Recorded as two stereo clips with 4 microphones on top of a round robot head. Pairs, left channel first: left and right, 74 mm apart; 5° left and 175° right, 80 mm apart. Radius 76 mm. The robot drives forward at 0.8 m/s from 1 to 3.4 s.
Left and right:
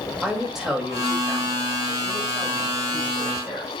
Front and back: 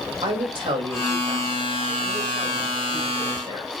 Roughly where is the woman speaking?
Behind.